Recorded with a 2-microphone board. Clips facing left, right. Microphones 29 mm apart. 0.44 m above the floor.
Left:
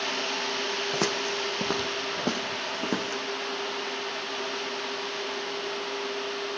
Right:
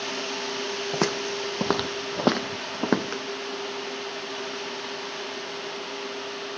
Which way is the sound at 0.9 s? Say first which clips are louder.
Right 3 dB; 10° right (ahead or behind).